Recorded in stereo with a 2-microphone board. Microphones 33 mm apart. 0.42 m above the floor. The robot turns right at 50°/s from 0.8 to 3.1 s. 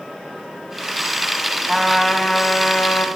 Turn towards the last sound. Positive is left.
turn(degrees=60)